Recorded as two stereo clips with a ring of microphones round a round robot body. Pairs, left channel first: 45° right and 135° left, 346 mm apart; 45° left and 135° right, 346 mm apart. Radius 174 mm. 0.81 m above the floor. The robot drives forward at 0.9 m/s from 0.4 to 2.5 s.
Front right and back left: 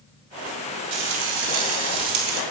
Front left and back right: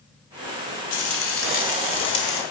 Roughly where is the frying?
Left.